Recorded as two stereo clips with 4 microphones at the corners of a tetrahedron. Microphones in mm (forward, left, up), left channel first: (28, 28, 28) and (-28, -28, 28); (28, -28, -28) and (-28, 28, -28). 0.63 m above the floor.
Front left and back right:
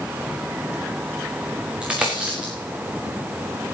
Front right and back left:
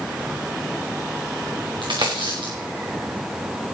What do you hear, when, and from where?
1.8 s a dropped coin: 145° left, 4 m